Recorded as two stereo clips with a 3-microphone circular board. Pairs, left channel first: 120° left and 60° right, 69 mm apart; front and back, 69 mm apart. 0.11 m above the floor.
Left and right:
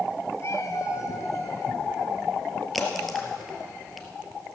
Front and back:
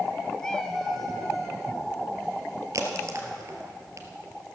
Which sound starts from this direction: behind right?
A crack, at 2.7 s.